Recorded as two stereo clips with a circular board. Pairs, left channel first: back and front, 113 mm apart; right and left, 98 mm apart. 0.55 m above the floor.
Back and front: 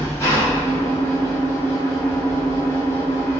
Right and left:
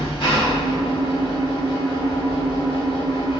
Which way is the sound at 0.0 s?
115° right.